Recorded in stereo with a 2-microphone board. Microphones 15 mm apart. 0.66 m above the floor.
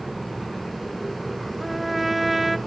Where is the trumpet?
10° right (ahead or behind), 0.7 m.